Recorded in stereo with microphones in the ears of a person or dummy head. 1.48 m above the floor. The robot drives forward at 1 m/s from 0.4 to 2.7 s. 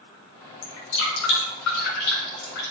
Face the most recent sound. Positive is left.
turn(degrees=65)  # may be behind; listen again after turning